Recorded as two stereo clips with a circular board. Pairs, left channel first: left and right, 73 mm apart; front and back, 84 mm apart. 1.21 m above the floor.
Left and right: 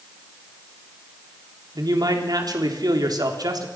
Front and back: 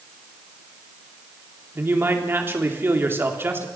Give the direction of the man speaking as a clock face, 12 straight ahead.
4 o'clock.